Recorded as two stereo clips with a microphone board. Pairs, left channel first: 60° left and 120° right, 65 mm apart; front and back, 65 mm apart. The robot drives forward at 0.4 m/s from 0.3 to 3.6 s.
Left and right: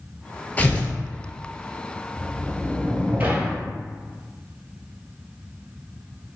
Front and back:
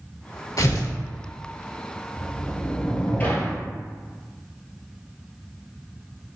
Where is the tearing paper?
Straight ahead, 0.8 m.